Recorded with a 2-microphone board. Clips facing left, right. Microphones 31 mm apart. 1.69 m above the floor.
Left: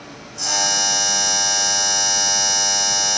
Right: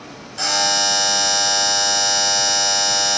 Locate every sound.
0.4 s a buzzer: 70° right (ahead or behind), 2.5 m